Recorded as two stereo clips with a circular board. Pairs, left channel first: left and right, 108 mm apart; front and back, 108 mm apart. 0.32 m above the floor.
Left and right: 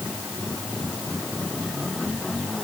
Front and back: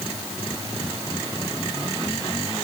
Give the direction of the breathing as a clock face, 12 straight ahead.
No breathing in this recording.